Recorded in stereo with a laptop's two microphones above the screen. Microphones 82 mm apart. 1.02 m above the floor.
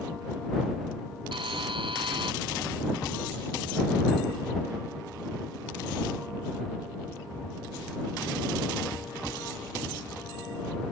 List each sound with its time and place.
1.3 s a buzzer: 85° right